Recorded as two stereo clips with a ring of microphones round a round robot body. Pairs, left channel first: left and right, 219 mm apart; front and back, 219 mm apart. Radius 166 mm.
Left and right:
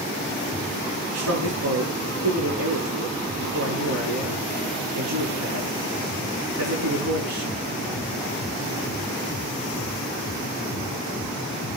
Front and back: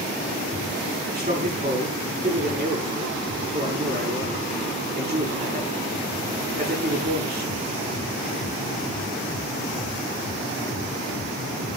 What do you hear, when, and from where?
1.1 s a man speaking: 110° right, 8.5 m